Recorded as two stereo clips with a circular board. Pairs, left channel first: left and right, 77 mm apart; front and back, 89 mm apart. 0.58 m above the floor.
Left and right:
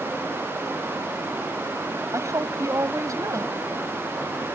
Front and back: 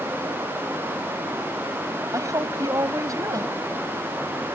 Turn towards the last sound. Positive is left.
turn(degrees=-135)